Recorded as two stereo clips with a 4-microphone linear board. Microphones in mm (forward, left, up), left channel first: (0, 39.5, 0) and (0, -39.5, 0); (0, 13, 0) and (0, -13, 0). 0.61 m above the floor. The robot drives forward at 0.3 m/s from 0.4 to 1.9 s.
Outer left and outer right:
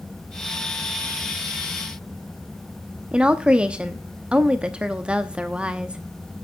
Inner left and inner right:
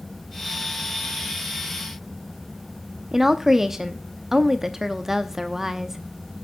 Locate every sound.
3.1 s a woman speaking: 10° right (ahead or behind), 0.6 m